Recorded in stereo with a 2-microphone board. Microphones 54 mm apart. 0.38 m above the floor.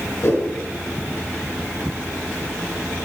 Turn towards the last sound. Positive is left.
turn(degrees=55)  # may be behind; listen again after turning